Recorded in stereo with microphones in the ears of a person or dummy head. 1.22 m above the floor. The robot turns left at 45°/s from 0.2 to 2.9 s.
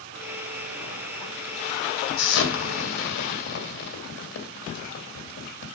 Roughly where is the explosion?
Left.